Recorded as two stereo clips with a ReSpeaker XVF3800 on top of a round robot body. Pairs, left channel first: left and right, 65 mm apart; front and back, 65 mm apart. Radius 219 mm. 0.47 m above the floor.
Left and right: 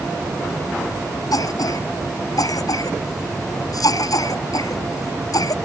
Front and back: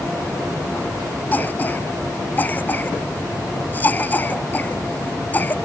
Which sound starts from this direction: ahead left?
A cough, at 1.3 s.